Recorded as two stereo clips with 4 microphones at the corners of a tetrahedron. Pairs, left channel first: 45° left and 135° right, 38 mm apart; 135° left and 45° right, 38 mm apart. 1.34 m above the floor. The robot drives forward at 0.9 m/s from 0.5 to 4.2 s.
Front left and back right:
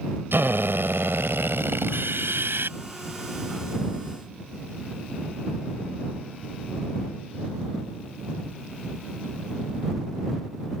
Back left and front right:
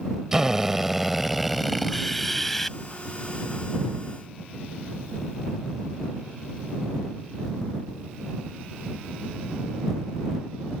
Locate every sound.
0.3 s a drill: 125° right; by 2.8 s 140° right